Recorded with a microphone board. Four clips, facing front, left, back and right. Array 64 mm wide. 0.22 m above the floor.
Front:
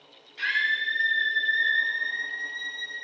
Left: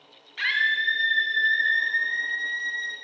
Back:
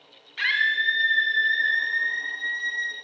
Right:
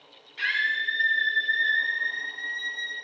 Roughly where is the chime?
I don't hear a chime.